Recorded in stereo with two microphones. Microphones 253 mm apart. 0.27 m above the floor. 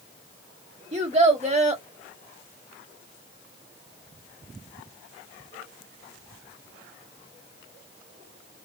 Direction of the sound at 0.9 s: 25° right (ahead or behind).